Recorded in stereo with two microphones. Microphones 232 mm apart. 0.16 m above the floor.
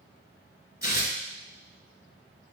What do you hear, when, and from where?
0.8 s tearing paper: 45° left (ahead or behind), 1.0 m